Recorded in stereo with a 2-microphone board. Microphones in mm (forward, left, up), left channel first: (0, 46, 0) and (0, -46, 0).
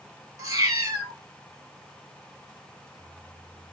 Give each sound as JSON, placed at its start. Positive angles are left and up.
{"t": 0.4, "sound": "a cat meowing", "side_deg": -40, "distance_m": 1.0}